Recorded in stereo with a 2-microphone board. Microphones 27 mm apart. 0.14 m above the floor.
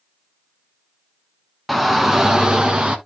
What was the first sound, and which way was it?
A shout, 5° right (ahead or behind).